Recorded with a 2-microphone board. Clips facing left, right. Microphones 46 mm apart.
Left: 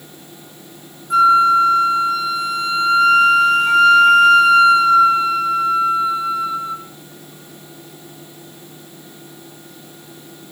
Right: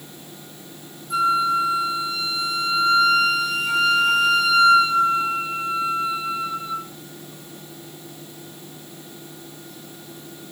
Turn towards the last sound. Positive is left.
turn(degrees=55)  # may be behind; listen again after turning